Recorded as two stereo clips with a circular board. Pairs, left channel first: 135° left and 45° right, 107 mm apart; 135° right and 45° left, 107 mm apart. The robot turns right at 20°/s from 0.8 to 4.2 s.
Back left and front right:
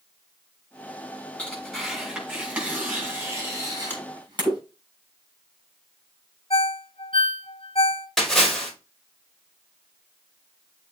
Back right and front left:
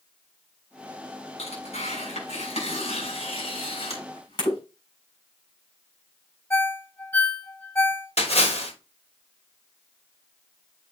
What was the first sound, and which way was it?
Tearing paper, 145° right.